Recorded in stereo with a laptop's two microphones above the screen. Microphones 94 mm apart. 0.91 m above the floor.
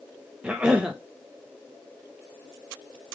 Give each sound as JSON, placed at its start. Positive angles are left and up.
{"t": 0.4, "sound": "a cough", "side_deg": -10, "distance_m": 0.6}